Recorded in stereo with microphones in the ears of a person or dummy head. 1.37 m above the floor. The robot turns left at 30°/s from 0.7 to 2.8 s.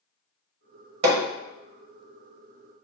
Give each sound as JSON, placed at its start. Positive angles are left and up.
{"t": 1.0, "sound": "hammering", "side_deg": -65, "distance_m": 1.0}